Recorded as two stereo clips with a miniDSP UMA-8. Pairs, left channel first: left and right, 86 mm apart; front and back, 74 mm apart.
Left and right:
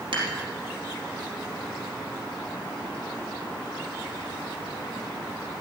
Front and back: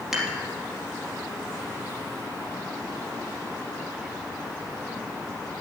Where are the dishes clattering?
95° right, 3 m.